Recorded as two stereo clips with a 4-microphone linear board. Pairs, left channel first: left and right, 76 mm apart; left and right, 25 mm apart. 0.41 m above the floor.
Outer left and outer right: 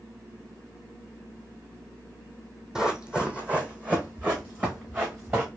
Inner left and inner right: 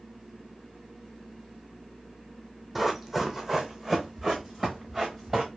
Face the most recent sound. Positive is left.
turn(degrees=-25)  # may be behind; listen again after turning